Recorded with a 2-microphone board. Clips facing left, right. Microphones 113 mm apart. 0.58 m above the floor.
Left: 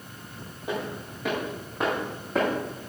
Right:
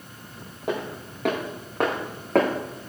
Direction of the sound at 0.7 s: 60° right (ahead or behind).